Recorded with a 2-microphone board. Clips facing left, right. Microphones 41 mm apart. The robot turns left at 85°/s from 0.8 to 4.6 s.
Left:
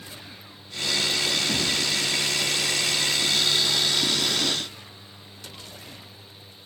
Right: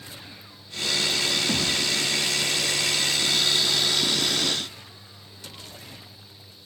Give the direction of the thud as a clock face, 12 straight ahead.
5 o'clock.